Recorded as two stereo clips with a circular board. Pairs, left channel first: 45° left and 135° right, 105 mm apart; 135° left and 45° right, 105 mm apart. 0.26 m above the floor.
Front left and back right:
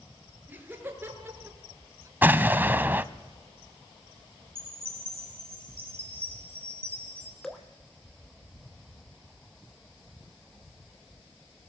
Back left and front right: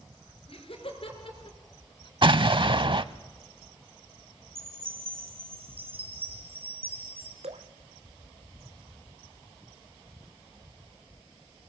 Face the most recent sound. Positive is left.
turn(degrees=-40)